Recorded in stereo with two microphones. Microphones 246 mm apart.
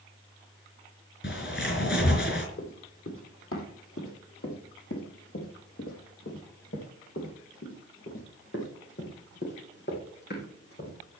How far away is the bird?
About 4 m.